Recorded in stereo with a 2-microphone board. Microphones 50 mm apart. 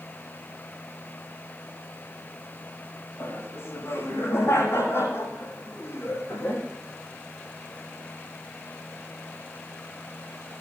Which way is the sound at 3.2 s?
50° left (ahead or behind).